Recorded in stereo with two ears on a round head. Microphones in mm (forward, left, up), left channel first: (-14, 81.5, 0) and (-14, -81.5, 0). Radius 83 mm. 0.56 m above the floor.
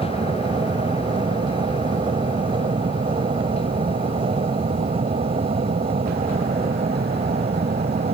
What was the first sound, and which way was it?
An aircraft, 25° right (ahead or behind).